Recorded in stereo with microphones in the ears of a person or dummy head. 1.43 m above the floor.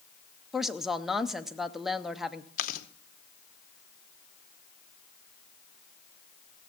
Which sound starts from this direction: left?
Chewing, at 2.6 s.